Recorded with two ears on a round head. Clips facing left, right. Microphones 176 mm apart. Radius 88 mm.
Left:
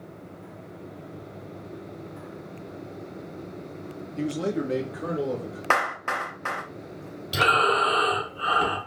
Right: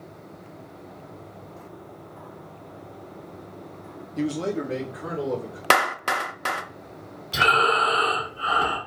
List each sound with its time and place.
4.2 s a man speaking: 20° right (ahead or behind), 0.6 m; by 5.6 s 55° left (ahead or behind), 2 m
5.7 s a clap: 45° right (ahead or behind), 0.5 m
7.3 s breathing: 45° left (ahead or behind), 1.7 m